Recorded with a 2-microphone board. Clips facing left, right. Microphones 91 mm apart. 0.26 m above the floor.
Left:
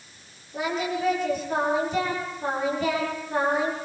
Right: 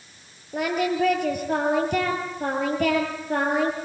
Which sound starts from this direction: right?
Singing, at 0.5 s.